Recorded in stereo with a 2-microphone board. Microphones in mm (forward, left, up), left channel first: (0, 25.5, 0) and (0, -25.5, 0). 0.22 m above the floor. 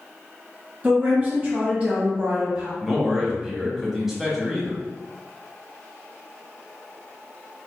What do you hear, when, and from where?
0.8 s a woman speaking: 30° right (ahead or behind), 1.4 m
2.8 s a man speaking: 5° right (ahead or behind), 1.0 m